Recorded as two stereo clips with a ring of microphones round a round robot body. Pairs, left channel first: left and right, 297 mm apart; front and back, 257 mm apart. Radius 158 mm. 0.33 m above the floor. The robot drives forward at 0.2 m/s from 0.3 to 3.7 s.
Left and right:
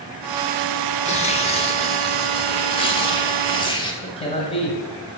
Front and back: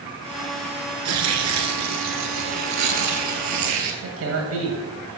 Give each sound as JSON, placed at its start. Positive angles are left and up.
{"t": 1.1, "sound": "tearing paper", "azimuth_deg": 160, "distance_m": 1.2}
{"t": 4.0, "sound": "a man speaking", "azimuth_deg": 160, "distance_m": 1.9}